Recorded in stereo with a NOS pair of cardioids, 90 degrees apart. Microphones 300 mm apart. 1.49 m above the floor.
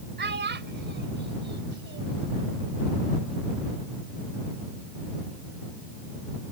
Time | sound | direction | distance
0.2 | a child speaking | 35° right | ?